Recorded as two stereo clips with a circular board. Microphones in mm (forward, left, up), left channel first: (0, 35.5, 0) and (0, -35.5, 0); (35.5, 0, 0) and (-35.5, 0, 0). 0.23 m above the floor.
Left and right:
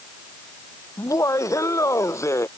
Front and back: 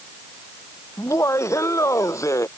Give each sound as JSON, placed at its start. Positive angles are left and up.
{"t": 1.0, "sound": "laughter", "azimuth_deg": 45}